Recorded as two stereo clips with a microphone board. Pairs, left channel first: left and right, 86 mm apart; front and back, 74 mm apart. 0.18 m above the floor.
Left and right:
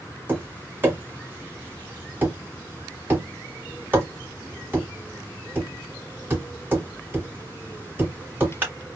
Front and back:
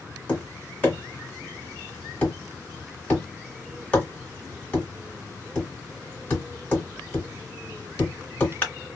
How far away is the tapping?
About 1.7 m.